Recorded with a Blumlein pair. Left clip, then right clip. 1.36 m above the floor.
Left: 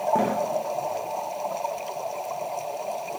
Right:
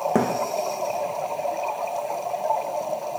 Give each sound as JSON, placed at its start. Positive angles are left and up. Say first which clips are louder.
{"t": 0.1, "sound": "a thud", "louder": "right 1 dB", "azimuth_deg": -60, "distance_m": 5.0}